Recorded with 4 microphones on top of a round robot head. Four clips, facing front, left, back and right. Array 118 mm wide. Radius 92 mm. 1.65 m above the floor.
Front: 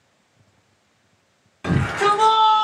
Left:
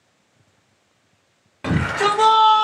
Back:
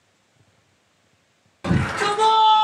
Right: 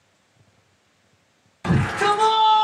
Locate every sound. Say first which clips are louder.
1.6 s a shout: even, front 3 dB; 110° left, 1.7 m; by 2.6 s 85° left, 1.4 m